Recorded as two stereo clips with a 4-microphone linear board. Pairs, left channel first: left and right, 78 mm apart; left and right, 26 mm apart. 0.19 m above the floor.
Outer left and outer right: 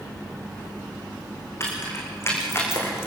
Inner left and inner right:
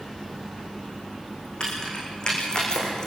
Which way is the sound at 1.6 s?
35° left (ahead or behind).